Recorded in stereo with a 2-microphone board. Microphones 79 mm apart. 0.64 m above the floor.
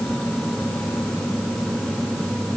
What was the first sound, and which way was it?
Only background noise.